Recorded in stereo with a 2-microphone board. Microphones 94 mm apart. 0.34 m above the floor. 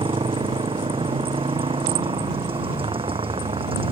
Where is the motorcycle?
75° right (ahead or behind); by 3.9 s 80° right.